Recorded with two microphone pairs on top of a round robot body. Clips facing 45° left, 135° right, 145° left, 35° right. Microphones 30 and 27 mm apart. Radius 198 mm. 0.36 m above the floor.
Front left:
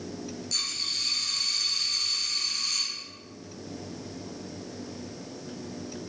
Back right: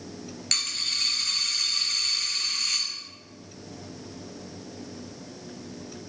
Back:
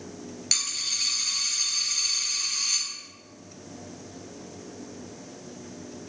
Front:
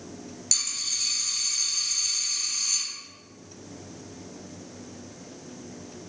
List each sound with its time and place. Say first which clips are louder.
0.5 s a dropped coin: back right 3 dB, back 2 dB; 150° right, 1.0 m